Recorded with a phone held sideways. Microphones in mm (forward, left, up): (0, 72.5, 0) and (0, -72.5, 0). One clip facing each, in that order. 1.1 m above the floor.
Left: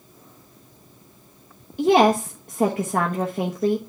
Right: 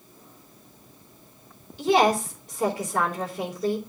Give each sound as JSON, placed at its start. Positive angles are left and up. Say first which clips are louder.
{"t": 1.8, "sound": "a woman speaking", "louder": "left 4 dB", "side_deg": 60, "distance_m": 1.1}